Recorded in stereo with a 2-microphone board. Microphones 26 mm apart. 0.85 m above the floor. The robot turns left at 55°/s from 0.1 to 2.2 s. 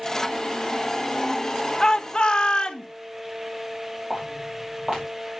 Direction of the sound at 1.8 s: 25° left (ahead or behind).